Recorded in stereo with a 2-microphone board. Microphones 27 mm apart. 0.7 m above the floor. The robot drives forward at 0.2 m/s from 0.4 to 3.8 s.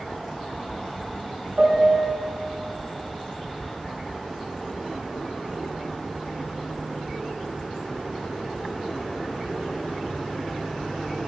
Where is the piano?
65° right (ahead or behind), 1.3 m; by 2.1 s 60° right (ahead or behind), 1.4 m.